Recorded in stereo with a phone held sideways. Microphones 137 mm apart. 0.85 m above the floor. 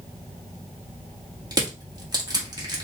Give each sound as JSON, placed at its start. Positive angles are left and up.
{"t": 1.5, "sound": "crushing", "side_deg": -30, "distance_m": 1.7}